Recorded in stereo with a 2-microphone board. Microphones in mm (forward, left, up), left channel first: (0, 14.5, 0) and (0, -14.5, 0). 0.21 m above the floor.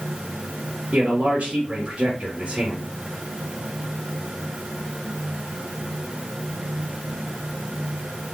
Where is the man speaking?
35° right (ahead or behind), 2.5 m.